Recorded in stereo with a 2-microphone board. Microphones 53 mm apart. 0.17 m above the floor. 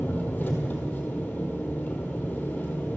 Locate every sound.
0.0 s an engine running: 30° left (ahead or behind), 1.4 m